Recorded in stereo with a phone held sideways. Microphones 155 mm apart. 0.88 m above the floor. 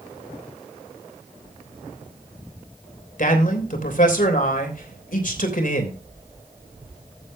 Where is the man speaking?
60° left (ahead or behind), 3 m.